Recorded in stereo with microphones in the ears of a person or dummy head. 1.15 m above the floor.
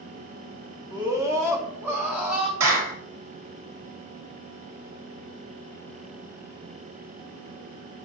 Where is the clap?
80° right, 4.5 m.